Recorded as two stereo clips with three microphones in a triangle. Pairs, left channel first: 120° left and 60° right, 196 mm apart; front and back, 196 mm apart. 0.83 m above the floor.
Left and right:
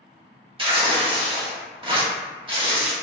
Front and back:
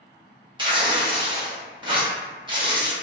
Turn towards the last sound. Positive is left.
turn(degrees=-115)